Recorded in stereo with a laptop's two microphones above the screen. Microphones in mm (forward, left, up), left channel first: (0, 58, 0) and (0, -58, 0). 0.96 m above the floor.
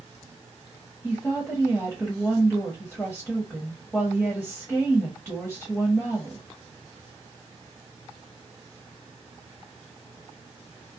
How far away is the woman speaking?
About 1.2 m.